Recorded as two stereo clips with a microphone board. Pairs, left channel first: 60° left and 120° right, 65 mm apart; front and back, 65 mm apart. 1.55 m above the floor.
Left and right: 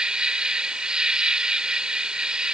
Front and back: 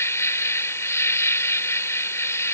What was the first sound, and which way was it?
An insect, 45° right.